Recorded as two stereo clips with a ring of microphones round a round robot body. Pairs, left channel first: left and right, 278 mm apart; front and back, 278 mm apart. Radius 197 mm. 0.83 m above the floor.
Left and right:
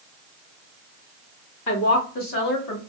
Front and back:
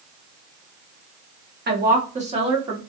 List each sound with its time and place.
1.7 s a woman speaking: 125° left, 1.3 m; by 2.8 s 105° left, 1.8 m